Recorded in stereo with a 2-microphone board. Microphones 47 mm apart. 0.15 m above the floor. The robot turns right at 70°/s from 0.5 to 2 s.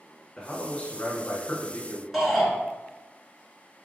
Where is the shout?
5° right (ahead or behind), 1.5 m.